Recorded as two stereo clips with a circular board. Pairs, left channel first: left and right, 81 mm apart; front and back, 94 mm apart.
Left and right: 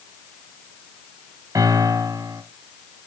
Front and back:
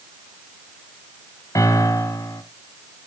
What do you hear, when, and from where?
1.6 s a piano: 50° right, 1.6 m